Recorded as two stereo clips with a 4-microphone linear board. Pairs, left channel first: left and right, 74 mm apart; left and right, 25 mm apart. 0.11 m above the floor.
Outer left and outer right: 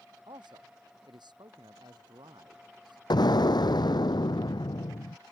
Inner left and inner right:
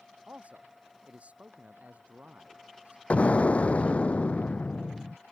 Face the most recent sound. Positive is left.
turn(degrees=70)  # may be behind; listen again after turning